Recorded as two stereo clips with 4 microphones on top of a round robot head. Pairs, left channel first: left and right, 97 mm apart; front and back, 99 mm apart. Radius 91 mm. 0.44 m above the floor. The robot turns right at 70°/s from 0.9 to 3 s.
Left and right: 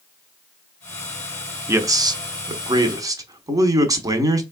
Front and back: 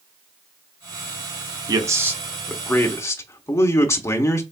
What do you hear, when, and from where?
1.7 s a man speaking: 145° right, 1.0 m; by 4.4 s 50° right, 1.0 m